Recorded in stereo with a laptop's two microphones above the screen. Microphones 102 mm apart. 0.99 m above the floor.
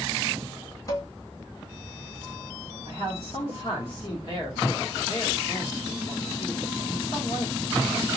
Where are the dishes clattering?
30° left (ahead or behind), 0.7 m.